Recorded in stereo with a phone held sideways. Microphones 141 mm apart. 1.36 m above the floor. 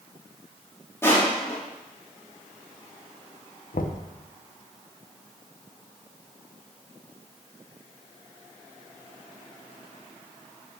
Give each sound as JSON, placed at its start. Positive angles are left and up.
{"t": 1.0, "sound": "crushing", "side_deg": 20, "distance_m": 2.0}
{"t": 3.7, "sound": "knocking", "side_deg": 80, "distance_m": 0.6}